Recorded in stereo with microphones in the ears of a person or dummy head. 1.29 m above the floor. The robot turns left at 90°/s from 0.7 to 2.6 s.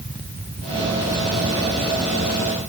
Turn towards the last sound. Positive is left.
No sound to turn to.